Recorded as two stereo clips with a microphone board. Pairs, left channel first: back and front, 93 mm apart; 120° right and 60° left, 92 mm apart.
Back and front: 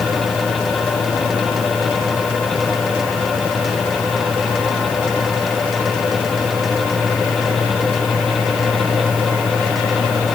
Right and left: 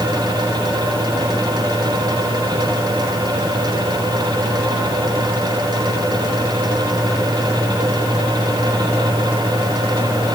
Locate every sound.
Only background noise.